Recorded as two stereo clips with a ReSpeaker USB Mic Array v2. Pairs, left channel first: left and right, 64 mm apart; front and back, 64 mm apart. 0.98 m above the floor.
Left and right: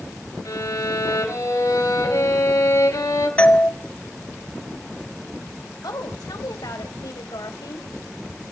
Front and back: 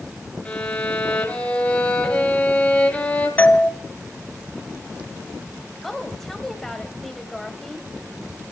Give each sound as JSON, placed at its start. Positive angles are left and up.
{"t": 0.5, "sound": "a violin", "azimuth_deg": 65, "distance_m": 4.0}
{"t": 3.4, "sound": "a doorbell", "azimuth_deg": 40, "distance_m": 1.0}
{"t": 5.8, "sound": "a woman speaking", "azimuth_deg": 85, "distance_m": 4.0}